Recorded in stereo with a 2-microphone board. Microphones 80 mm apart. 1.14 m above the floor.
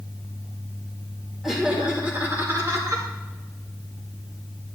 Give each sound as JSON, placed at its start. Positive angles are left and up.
{"t": 1.4, "sound": "laughter", "side_deg": -5, "distance_m": 2.0}